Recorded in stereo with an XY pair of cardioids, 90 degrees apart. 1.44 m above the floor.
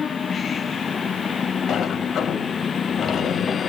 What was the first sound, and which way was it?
A sliding door, 65° left.